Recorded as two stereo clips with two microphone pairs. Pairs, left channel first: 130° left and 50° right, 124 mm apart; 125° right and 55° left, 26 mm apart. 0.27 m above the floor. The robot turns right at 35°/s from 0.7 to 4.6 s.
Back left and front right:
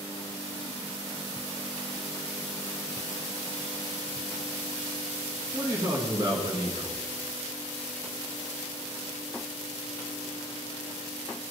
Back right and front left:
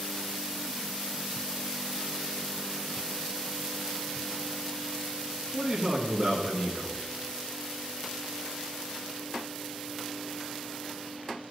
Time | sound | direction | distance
5.5 | a man speaking | straight ahead | 2.5 m